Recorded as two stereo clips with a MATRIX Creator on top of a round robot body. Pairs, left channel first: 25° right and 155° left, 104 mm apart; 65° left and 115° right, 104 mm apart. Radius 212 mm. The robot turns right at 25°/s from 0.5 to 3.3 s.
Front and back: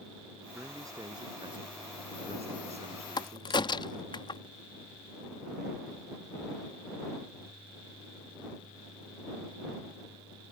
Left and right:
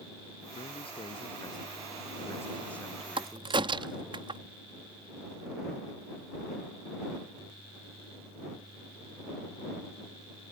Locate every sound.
0.6 s a man speaking: 90° left; by 4.2 s 160° left
3.2 s a crack: 75° right; by 4.4 s 70° right